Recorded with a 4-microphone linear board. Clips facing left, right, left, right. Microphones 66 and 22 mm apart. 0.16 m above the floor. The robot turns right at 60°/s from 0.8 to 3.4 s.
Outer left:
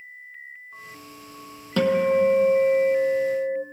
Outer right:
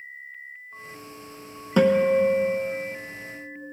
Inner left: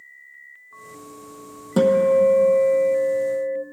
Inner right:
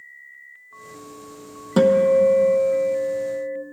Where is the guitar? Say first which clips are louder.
Outer right 1 dB, inner right 1 dB; 20° right, 0.8 m; by 3.6 s 80° left, 0.8 m.